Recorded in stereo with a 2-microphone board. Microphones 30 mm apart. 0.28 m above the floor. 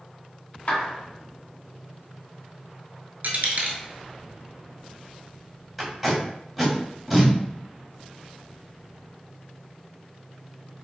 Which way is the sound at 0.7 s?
40° left (ahead or behind).